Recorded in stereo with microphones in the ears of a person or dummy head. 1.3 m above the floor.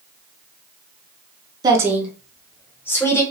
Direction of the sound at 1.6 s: 20° right (ahead or behind).